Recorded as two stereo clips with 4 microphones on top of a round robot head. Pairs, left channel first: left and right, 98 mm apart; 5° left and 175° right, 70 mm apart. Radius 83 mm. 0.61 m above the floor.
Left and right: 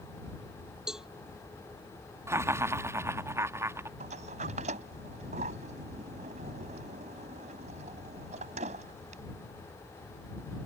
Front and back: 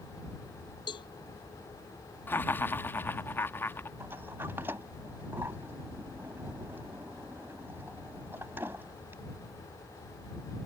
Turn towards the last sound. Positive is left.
turn(degrees=-105)